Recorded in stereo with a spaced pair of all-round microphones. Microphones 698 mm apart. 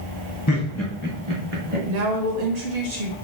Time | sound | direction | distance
0.5 | laughter | 25° left (ahead or behind) | 0.8 m
1.9 | a woman speaking | 75° right (ahead or behind) | 0.9 m